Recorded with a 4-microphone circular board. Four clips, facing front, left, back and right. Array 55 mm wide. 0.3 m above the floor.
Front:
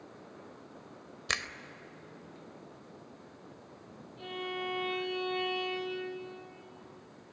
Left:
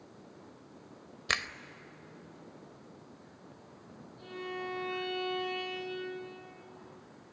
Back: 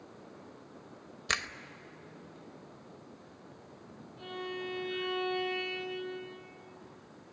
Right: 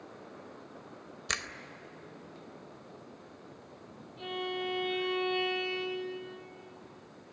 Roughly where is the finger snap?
Left.